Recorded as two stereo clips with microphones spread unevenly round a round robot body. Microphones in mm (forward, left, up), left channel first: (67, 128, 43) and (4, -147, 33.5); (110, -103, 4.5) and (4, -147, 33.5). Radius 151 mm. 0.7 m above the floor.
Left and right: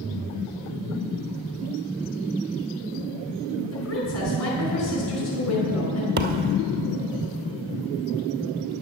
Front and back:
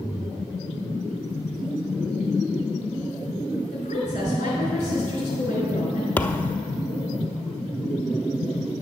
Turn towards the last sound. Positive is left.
turn(degrees=-65)